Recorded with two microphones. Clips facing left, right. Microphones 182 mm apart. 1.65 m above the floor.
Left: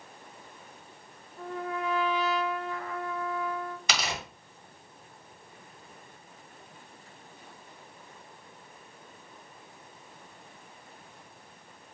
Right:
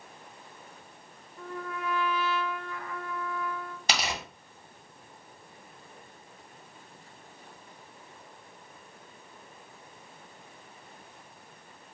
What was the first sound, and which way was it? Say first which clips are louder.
A trumpet: left 3 dB; 25° left (ahead or behind).